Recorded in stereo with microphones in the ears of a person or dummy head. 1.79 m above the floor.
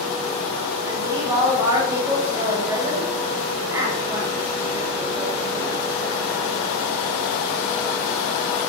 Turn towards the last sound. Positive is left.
turn(degrees=-15)  # may be behind; listen again after turning